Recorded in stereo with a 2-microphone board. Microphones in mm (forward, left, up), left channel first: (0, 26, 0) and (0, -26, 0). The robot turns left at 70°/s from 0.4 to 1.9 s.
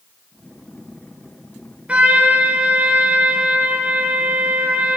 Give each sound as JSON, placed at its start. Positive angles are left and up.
{"t": 1.9, "sound": "a trumpet", "side_deg": -25, "distance_m": 3.0}